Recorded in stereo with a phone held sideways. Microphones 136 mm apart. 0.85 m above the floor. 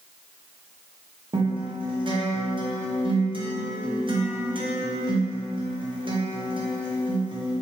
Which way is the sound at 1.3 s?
35° right (ahead or behind).